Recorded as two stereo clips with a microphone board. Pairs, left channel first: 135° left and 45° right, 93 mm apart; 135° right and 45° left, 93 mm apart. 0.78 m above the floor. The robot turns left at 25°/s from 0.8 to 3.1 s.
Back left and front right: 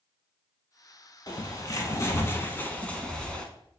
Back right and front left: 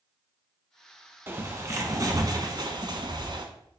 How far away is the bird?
About 1.1 m.